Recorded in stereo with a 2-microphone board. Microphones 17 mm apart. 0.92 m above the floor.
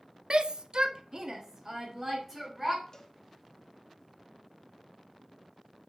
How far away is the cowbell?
About 1.0 m.